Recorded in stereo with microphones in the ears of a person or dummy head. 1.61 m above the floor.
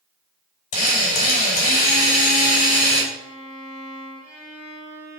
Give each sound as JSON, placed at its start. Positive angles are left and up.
{"t": 0.7, "sound": "a drill", "side_deg": 35, "distance_m": 3.5}
{"t": 3.1, "sound": "a violin", "side_deg": -70, "distance_m": 3.0}